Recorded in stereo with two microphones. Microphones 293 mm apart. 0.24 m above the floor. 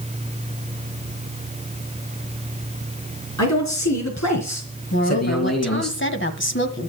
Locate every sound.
3.4 s a man speaking: 70° left (ahead or behind), 4 m; by 5.9 s 60° left (ahead or behind), 3.5 m
4.9 s a woman speaking: 40° left (ahead or behind), 1.5 m